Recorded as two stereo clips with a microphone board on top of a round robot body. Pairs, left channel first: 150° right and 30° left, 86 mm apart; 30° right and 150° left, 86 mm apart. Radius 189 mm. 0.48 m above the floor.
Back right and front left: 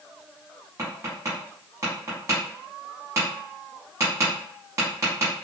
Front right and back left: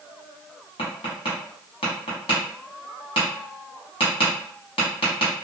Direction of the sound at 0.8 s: 30° right.